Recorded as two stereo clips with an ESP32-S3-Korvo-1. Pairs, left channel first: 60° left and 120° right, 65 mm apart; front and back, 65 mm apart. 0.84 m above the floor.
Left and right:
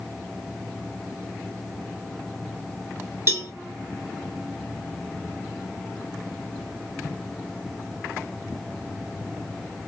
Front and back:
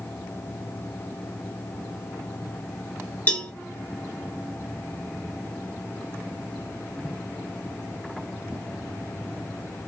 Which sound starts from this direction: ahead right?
A cowbell, at 3.3 s.